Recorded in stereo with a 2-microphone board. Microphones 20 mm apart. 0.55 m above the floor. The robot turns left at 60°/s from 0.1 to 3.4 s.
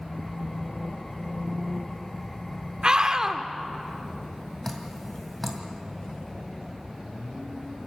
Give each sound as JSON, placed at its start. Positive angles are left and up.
{"t": 2.8, "sound": "a scream", "azimuth_deg": -125, "distance_m": 1.3}
{"t": 4.6, "sound": "dripping", "side_deg": 10, "distance_m": 2.0}